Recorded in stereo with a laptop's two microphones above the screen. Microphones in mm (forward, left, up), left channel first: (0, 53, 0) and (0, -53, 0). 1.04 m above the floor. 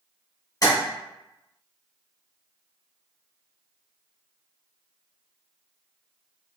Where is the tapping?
35° left (ahead or behind), 0.9 m.